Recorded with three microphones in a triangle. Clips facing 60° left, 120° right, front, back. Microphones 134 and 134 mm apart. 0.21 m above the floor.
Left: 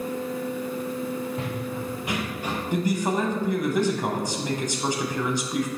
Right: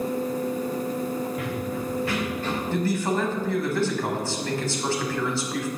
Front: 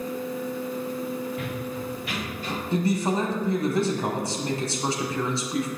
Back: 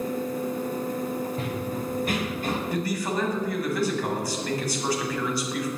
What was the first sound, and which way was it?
Running footsteps, 120° left.